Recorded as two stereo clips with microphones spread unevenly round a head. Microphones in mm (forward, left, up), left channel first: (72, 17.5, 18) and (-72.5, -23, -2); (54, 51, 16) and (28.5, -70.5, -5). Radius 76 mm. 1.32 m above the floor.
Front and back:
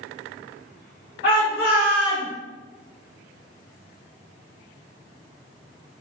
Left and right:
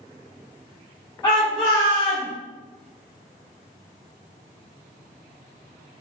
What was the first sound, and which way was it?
A shout, 20° left.